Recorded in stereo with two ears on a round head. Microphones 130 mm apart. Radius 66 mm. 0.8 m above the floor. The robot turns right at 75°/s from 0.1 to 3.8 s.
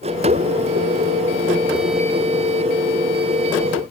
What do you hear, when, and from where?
Only background noise.